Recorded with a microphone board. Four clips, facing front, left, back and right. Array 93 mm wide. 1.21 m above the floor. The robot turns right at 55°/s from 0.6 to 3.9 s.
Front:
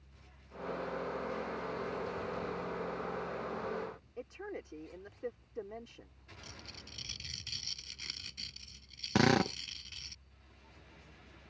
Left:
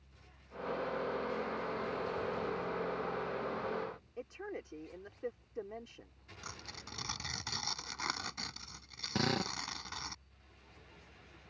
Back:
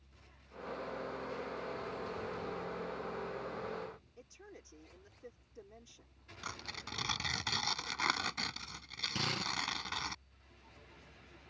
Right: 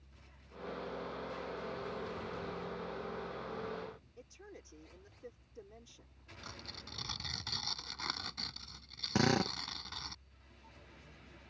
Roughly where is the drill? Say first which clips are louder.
Right 3 dB, front 12 dB; ahead.